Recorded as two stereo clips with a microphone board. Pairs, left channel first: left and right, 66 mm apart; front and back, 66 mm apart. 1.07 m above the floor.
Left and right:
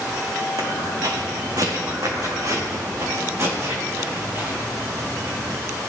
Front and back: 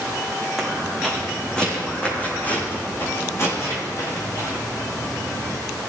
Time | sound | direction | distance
0.6 | footsteps | 90° right | 4 m